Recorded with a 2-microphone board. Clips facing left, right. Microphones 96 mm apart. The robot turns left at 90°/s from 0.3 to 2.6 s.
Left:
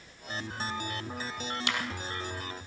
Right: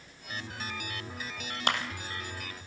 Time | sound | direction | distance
1.7 | a clap | 50° right (ahead or behind) | 3.5 m